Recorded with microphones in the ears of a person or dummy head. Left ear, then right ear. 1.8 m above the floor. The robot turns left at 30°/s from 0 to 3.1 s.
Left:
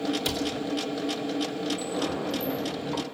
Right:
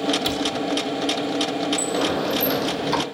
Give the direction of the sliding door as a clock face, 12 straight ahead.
1 o'clock.